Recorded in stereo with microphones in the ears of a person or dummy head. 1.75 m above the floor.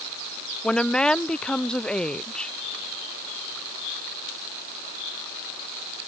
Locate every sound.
0.6 s a woman speaking: 5° left (ahead or behind)